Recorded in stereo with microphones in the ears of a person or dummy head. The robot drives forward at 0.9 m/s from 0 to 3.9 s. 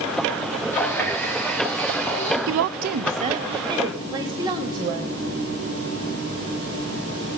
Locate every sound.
0.7 s a running tap: 15° left (ahead or behind), 1.4 m; by 2.4 s 5° left (ahead or behind), 2.5 m
2.5 s a woman speaking: 70° right (ahead or behind), 0.5 m; by 5.1 s 20° right (ahead or behind), 1.4 m